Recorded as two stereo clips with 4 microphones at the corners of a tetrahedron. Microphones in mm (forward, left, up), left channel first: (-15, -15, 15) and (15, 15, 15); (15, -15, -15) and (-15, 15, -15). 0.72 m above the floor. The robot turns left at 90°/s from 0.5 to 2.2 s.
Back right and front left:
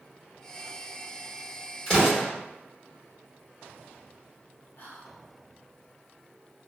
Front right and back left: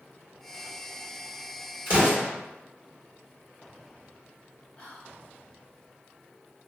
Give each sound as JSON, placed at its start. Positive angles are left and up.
{"t": 1.9, "sound": "an explosion", "azimuth_deg": 175, "distance_m": 1.4}
{"t": 4.8, "sound": "whispering", "azimuth_deg": -115, "distance_m": 0.9}